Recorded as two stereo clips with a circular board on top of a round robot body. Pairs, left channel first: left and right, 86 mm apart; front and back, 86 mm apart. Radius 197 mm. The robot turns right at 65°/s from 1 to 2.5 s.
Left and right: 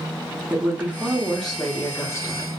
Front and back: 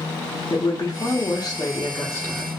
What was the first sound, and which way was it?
A woman speaking, 25° right.